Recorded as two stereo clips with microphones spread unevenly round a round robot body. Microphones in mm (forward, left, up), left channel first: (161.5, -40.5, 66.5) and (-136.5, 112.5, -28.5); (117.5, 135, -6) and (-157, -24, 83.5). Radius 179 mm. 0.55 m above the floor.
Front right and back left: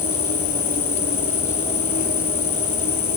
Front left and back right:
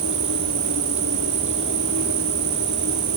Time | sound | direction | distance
0.0 | an insect | 95° right | ?